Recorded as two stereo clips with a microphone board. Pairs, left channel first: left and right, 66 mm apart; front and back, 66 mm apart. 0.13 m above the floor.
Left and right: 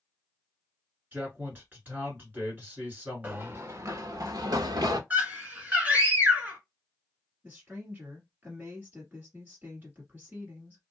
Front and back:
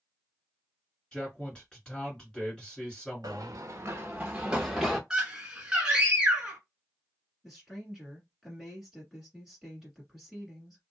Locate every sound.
1.1 s a man speaking: 65° right, 2.0 m
3.2 s running footsteps: 155° right, 0.7 m; by 5.0 s 90° right, 1.1 m
5.1 s a scream: 120° right, 1.4 m
7.4 s a woman speaking: 95° right, 1.6 m